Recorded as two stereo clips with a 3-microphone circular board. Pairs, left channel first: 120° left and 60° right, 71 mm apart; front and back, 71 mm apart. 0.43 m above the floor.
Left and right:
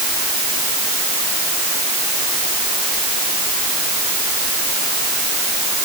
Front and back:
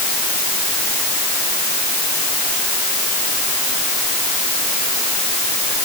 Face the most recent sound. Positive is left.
No sound to turn to.